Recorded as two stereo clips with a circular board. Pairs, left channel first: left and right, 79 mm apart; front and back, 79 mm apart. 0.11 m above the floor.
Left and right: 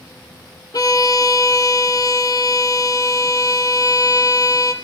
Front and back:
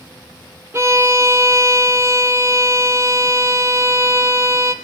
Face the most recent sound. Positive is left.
turn(degrees=125)